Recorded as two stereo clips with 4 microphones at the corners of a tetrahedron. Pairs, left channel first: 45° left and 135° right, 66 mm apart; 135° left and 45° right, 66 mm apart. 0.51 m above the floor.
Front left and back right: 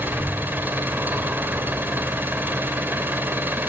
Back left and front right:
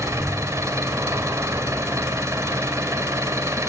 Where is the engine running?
80° right, 2 m.